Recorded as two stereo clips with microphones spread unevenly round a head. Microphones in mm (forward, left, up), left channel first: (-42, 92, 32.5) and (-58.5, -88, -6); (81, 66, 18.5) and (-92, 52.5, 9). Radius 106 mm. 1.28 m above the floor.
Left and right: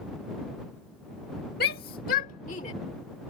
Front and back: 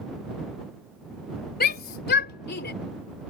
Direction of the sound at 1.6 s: 35° left.